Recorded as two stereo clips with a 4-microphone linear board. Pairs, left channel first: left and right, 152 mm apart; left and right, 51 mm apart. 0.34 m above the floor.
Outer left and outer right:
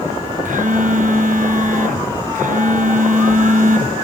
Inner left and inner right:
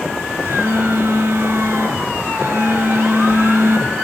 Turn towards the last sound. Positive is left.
turn(degrees=-60)  # may be behind; listen again after turning